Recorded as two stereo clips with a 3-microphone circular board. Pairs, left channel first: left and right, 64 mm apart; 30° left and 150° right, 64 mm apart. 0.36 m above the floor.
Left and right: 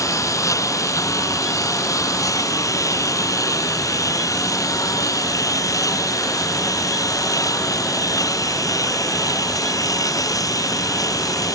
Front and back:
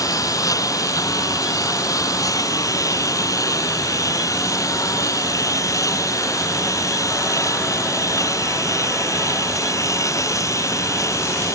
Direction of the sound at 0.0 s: 60° left.